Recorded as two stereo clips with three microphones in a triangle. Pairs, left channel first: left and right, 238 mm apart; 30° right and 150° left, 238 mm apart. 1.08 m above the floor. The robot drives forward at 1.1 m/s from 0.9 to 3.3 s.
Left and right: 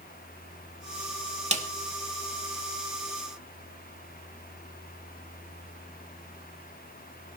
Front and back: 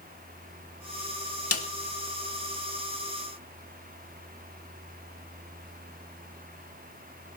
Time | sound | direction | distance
1.5 | a snare drum | 30° right | 2.0 m